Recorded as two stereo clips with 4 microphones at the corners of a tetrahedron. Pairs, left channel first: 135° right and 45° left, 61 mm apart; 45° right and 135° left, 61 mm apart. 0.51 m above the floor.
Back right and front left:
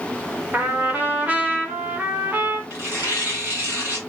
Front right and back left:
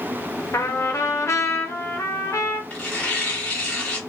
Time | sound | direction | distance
0.5 | a trumpet | 15° right | 0.6 m
2.7 | tearing paper | 15° left | 1.6 m